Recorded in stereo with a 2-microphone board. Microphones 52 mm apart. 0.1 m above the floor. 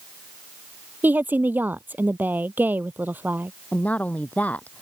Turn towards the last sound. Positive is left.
turn(degrees=30)  # may be behind; listen again after turning